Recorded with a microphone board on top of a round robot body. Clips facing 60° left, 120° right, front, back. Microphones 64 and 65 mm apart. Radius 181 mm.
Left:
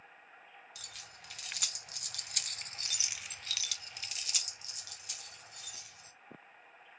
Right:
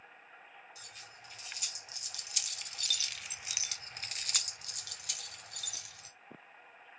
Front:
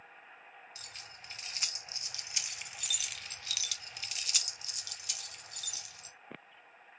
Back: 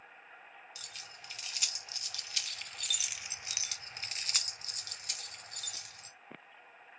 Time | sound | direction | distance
0.8 | keys jangling | 55° left | 1.5 m